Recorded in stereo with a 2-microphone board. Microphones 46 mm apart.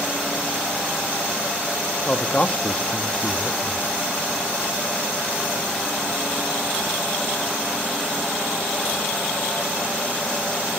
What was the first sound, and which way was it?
A man speaking, 25° left (ahead or behind).